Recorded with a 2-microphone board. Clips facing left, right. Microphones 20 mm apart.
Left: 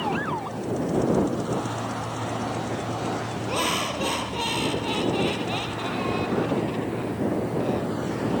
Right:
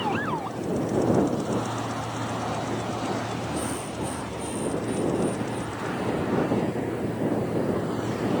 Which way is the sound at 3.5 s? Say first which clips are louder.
Left 5 dB; 60° left (ahead or behind).